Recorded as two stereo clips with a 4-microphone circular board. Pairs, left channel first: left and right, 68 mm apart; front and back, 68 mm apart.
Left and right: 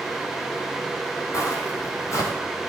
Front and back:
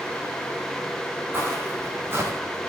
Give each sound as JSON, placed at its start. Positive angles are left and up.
{"t": 1.3, "sound": "footsteps", "azimuth_deg": 125, "distance_m": 6.0}